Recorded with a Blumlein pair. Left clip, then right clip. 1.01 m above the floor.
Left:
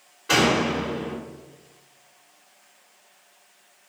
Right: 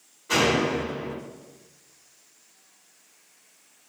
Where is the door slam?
45° left, 1.4 m.